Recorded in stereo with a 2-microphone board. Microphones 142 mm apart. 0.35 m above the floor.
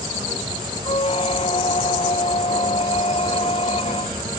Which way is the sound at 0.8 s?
45° left (ahead or behind).